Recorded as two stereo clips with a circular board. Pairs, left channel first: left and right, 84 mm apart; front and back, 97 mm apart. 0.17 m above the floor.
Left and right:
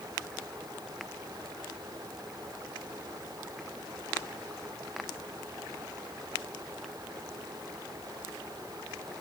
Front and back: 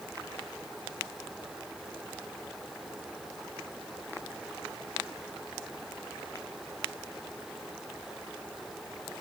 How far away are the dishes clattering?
No dishes clattering in this recording.